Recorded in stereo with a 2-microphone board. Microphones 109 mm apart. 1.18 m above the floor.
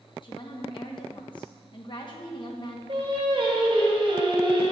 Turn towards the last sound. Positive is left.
turn(degrees=-50)  # may be behind; listen again after turning